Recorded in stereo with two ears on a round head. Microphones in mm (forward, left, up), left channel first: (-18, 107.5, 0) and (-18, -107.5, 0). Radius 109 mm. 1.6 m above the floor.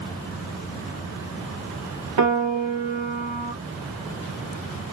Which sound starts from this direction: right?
A piano, at 2.2 s.